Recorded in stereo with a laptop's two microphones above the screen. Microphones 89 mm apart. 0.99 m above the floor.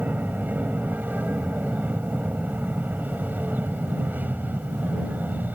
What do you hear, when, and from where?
0.0 s an aircraft: 20° right (ahead or behind)